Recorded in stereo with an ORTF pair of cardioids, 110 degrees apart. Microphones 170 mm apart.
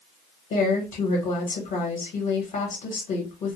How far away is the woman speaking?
About 1.0 m.